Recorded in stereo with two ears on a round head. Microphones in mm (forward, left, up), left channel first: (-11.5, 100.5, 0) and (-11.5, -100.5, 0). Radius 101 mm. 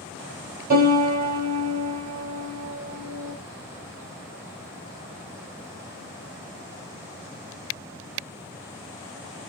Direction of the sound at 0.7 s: 40° right (ahead or behind).